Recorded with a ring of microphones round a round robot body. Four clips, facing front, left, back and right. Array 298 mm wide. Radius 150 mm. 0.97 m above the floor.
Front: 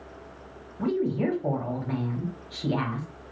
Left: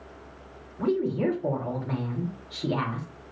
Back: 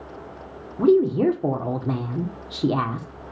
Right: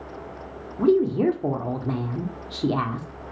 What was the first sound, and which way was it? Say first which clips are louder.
A woman speaking: right 6 dB, back 9 dB; 150° right.